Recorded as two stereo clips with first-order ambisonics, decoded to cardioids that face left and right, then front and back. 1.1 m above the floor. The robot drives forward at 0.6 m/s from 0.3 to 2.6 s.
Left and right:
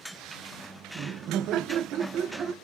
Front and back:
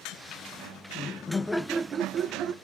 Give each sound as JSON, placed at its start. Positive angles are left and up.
{"t": 0.9, "sound": "laughter", "azimuth_deg": -45, "distance_m": 0.6}